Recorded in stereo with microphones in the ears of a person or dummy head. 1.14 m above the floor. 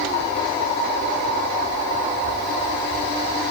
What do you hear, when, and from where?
Only background noise.